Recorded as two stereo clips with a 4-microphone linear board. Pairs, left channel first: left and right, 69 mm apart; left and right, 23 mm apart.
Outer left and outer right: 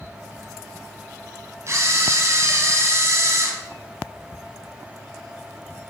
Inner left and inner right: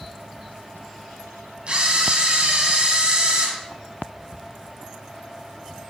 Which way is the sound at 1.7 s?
45° right (ahead or behind).